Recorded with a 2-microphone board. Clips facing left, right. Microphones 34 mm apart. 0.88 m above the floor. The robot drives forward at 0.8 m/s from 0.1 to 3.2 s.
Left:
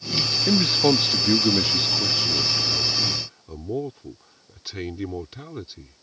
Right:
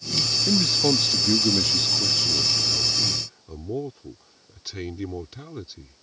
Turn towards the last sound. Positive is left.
turn(degrees=15)  # may be behind; listen again after turning